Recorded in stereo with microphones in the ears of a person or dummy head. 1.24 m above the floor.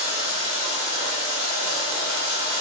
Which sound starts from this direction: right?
Running water, at 0.0 s.